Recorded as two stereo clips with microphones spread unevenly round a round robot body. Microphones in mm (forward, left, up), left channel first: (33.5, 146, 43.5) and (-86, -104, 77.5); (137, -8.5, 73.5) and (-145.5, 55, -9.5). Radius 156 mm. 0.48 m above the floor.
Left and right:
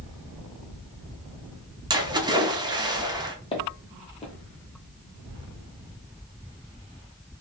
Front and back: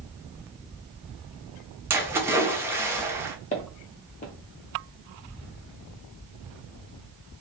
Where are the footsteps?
10° right, 0.5 m.